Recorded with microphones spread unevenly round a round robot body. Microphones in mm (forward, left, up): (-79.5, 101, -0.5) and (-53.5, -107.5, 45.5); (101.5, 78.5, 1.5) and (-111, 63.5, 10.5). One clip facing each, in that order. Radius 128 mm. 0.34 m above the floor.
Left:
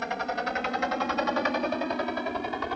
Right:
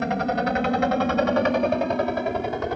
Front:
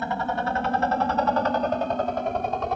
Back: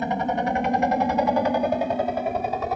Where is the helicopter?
105° right; by 2.8 s 90° right.